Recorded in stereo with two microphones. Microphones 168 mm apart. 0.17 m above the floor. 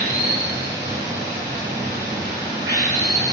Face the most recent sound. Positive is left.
turn(degrees=-15)  # may be behind; listen again after turning